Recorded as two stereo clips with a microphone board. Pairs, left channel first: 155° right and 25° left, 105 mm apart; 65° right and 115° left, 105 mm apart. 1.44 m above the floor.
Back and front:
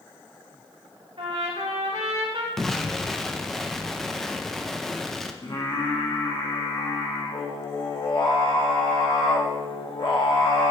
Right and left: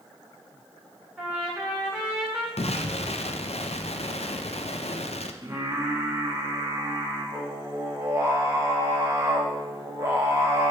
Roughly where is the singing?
Behind.